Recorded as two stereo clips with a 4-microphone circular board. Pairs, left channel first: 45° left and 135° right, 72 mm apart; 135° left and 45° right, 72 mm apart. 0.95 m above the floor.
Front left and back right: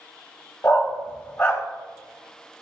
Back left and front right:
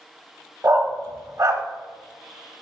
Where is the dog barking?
10° right, 1.2 m.